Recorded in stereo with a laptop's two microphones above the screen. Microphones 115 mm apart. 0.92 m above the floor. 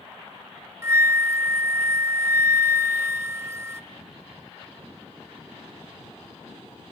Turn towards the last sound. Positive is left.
turn(degrees=-25)  # may be behind; listen again after turning